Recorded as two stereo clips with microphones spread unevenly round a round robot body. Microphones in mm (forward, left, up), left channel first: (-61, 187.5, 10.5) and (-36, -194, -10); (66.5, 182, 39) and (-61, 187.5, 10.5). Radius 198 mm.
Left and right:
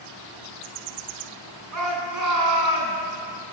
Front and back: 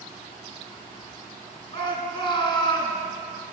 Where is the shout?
135° right, 7.5 m; by 3.0 s 130° right, 7 m.